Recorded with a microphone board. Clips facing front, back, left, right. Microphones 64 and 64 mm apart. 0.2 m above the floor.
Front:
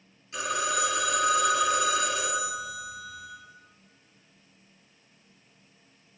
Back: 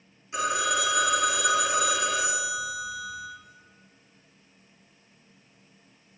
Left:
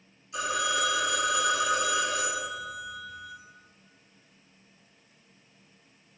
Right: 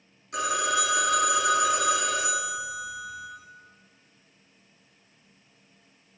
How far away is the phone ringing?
About 1.8 m.